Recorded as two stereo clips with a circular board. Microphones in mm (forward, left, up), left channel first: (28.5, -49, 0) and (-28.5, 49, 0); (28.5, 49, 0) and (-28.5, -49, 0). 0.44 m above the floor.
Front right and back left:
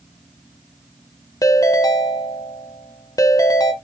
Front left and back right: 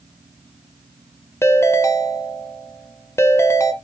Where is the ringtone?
5° right, 0.5 m.